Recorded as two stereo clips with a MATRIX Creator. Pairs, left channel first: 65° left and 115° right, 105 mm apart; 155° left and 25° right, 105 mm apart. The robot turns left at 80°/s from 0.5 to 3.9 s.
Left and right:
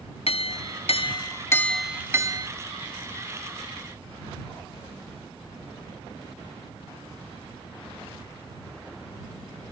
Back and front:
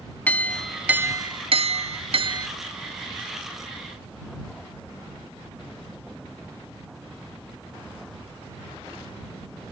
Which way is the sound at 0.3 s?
85° left.